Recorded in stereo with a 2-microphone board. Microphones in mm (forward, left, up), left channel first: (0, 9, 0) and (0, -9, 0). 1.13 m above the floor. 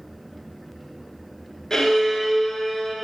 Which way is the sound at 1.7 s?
30° left (ahead or behind).